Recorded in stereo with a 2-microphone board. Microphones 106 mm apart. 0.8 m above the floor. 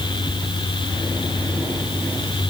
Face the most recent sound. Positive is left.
No sound to turn to.